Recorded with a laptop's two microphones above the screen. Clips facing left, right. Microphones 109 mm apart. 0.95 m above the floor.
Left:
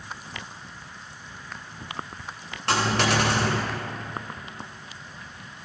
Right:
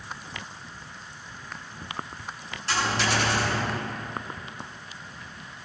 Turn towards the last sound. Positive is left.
turn(degrees=65)  # may be behind; listen again after turning